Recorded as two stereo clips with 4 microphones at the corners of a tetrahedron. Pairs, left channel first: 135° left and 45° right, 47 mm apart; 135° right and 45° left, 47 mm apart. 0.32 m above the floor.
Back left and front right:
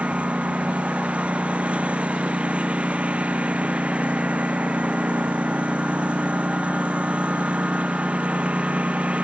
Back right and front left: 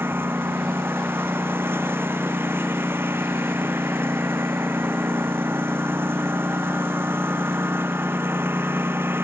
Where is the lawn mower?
15° left.